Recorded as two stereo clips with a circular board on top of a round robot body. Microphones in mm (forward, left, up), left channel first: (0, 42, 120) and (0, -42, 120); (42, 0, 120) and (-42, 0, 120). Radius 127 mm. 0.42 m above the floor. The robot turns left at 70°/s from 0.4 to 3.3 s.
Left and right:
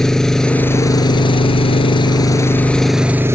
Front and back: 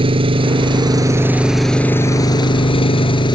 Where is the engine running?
175° left; by 3.4 s 25° right.